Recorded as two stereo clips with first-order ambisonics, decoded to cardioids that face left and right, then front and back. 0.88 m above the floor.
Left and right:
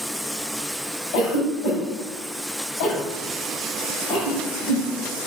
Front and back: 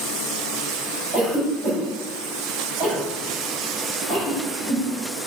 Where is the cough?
115° left, 6 m.